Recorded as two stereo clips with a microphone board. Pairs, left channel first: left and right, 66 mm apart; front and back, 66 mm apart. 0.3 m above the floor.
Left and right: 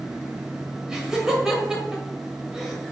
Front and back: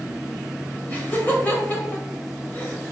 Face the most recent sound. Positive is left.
turn(degrees=-15)